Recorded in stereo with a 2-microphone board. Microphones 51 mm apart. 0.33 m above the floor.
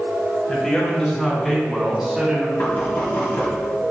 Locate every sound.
0.5 s a man speaking: 20° left (ahead or behind), 3 m; by 2.5 s 15° right (ahead or behind), 1.9 m
2.6 s knocking: 40° left (ahead or behind), 1.9 m